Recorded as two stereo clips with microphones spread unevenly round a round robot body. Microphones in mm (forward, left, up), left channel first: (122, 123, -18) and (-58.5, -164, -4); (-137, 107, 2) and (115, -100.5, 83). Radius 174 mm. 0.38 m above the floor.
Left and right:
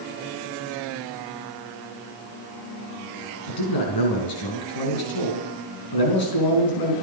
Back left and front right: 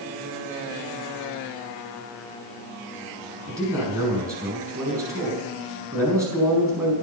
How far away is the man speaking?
About 4.5 m.